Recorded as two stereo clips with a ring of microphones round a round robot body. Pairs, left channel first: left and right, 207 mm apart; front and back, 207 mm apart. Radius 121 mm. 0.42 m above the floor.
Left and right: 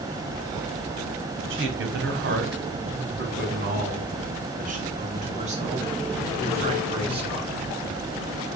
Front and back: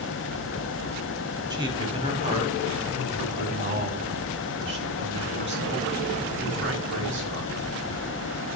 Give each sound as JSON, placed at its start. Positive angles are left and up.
{"t": 1.5, "sound": "a man speaking", "azimuth_deg": -110, "distance_m": 3.0}